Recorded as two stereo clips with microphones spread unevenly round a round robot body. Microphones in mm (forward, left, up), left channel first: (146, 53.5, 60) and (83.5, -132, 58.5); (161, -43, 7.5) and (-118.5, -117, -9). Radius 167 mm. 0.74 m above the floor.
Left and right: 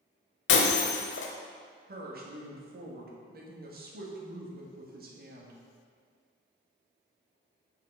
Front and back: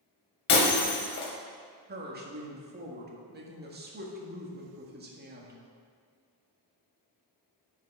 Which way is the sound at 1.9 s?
125° right.